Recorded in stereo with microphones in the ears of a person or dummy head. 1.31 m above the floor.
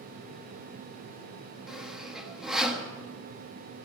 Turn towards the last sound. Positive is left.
turn(degrees=0)  # may be behind; listen again after turning